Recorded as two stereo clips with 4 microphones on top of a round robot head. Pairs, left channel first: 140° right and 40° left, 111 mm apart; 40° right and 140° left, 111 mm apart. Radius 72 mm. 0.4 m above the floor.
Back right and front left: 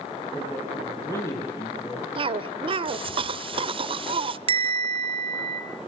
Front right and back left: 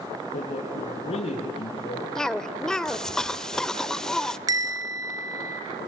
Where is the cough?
40° left, 1.3 m.